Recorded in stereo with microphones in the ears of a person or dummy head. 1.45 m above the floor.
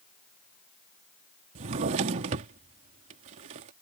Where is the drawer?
30° right (ahead or behind).